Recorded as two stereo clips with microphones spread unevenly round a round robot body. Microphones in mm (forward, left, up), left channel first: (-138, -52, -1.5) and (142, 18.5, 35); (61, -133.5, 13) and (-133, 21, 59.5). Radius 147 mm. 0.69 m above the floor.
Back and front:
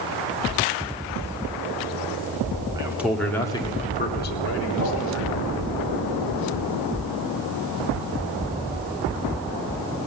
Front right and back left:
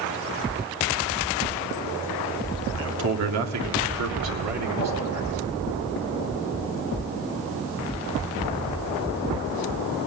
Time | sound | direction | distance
2.7 | a man speaking | 95° left | 2 m
4.7 | a whoosh | 15° right | 8 m